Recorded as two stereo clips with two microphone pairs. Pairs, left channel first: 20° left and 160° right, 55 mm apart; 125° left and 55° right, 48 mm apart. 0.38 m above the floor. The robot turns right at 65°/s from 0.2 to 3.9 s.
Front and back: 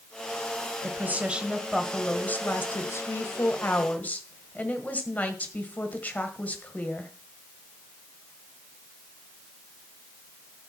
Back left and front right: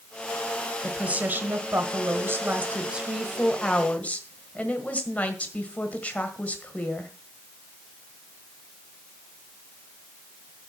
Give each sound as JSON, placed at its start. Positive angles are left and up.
{"t": 0.8, "sound": "a woman speaking", "azimuth_deg": -125, "distance_m": 1.6}